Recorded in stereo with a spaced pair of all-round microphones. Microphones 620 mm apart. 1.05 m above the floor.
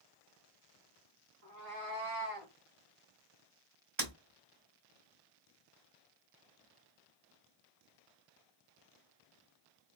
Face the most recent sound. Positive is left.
turn(degrees=-90)